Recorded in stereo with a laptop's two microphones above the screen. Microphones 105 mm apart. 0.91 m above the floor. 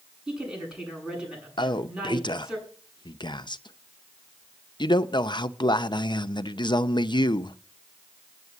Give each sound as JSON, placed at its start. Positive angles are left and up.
{"t": 0.3, "sound": "a woman speaking", "side_deg": -5, "distance_m": 8.0}
{"t": 1.6, "sound": "a man speaking", "side_deg": 45, "distance_m": 0.7}